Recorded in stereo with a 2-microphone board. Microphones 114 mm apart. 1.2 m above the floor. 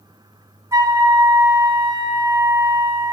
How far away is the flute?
About 1.2 m.